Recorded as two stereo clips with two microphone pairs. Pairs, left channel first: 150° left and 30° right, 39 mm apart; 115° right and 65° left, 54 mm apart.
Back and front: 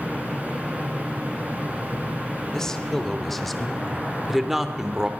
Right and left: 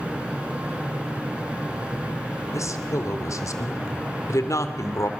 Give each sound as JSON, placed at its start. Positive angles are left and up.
{"t": 2.5, "sound": "a woman speaking", "azimuth_deg": -135, "distance_m": 3.0}